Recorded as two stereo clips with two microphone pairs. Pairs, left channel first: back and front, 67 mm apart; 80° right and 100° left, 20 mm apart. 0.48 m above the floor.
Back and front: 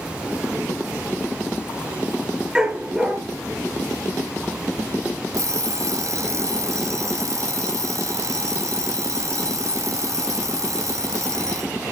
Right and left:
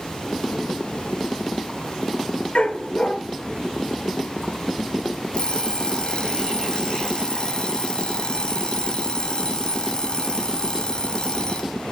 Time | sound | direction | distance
2.5 | a dog barking | 85° right | 2.5 m
5.3 | an alarm clock | 35° right | 1.4 m